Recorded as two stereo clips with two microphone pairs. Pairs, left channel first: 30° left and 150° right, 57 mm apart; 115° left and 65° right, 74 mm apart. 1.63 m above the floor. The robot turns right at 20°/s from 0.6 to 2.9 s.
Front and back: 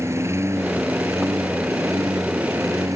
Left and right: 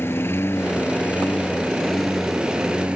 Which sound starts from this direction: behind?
A lawn mower, at 0.0 s.